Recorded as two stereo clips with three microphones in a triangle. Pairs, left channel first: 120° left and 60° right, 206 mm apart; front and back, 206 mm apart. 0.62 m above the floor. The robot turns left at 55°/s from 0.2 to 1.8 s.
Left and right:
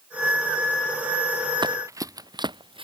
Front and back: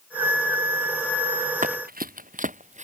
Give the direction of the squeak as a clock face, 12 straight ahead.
No squeak in this recording.